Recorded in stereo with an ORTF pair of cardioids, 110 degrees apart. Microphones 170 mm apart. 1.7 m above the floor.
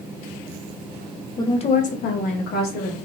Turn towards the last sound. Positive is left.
turn(degrees=80)